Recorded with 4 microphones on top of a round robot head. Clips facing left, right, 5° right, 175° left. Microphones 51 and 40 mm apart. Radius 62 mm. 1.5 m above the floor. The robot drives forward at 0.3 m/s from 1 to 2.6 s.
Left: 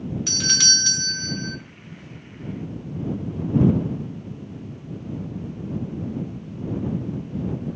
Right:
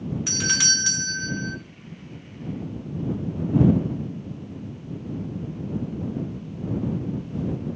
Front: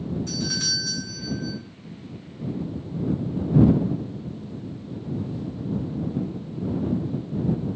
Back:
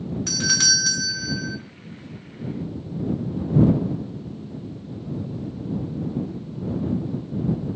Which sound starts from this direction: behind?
A doorbell, at 0.3 s.